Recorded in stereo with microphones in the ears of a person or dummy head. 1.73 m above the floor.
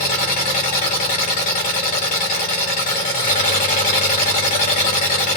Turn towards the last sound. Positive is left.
turn(degrees=40)  # may be behind; listen again after turning